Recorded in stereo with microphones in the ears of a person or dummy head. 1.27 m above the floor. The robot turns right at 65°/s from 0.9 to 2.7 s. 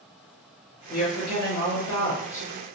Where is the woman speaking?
60° left, 1.3 m; by 2.4 s 160° left, 1.3 m.